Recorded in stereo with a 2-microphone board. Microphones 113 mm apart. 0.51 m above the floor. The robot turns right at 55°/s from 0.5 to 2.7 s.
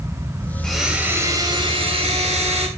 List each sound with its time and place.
0.6 s a blender: 175° left, 2.5 m; by 2.7 s 75° right, 2.5 m